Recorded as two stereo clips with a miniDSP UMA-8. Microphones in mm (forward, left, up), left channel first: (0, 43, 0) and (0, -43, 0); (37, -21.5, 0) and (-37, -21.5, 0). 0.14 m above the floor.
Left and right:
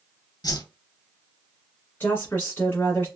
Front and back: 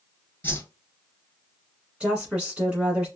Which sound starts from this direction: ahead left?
A whoosh, at 0.4 s.